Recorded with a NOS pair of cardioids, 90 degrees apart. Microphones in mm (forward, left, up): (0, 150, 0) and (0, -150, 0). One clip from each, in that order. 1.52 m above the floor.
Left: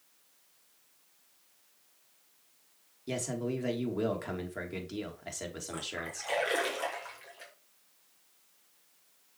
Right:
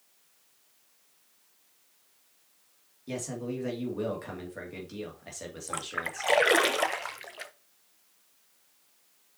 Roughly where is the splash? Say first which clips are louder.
Right 7 dB; ahead right.